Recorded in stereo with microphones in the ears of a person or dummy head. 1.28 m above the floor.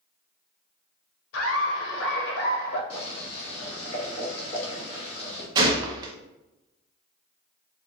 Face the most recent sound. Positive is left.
turn(degrees=-20)  # may be behind; listen again after turning